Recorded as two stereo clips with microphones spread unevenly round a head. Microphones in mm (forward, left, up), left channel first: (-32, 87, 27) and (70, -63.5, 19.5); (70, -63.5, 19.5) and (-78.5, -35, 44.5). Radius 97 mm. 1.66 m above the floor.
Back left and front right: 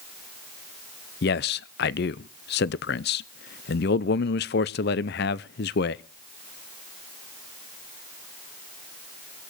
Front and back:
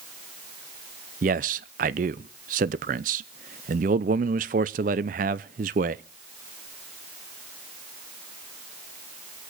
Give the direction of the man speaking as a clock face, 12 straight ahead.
7 o'clock.